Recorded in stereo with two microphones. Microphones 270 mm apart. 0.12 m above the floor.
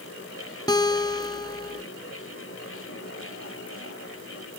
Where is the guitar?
15° left (ahead or behind), 0.8 m.